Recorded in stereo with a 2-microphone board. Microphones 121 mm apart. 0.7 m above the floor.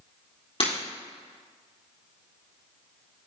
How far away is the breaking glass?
About 3.5 m.